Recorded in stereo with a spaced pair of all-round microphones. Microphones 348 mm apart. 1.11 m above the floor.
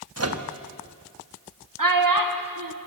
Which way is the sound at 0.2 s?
45° right (ahead or behind).